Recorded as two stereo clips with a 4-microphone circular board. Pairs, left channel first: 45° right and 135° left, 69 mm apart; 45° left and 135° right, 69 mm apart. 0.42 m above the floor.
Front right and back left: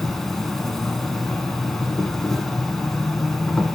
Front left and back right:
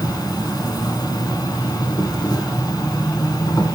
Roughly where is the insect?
Ahead left.